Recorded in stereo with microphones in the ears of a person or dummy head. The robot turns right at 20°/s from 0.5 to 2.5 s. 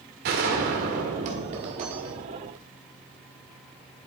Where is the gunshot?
85° right, 1.6 m; by 2.6 s 45° right, 1.6 m.